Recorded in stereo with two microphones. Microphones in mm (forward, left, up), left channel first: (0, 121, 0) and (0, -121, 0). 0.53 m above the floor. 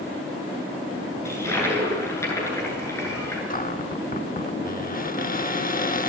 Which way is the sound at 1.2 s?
10° left (ahead or behind).